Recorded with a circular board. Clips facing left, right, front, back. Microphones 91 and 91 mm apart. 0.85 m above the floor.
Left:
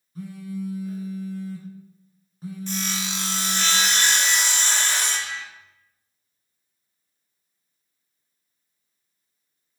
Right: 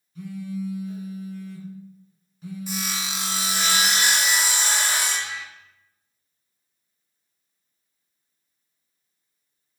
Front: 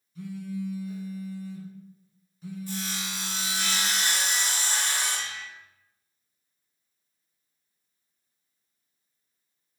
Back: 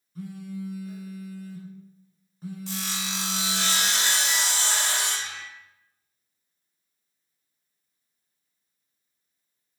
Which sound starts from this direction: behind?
Sawing, at 2.7 s.